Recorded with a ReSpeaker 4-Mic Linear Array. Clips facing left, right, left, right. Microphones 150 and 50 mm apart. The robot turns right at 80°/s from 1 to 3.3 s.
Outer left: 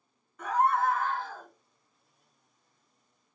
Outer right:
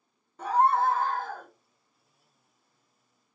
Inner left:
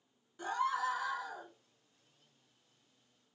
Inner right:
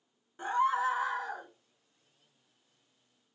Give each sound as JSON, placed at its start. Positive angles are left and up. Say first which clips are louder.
{"t": 0.4, "sound": "a scream", "louder": "outer right 3 dB, inner right 6 dB", "azimuth_deg": -150, "distance_m": 0.6}